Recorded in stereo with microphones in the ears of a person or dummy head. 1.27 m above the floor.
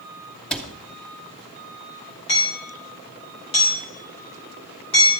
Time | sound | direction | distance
0.5 | a cupboard door | 5° left (ahead or behind) | 0.8 m
2.3 | hammering | 25° left (ahead or behind) | 3.5 m